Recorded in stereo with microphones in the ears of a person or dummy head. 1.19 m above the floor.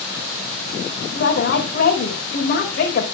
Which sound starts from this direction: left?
A woman speaking, at 1.1 s.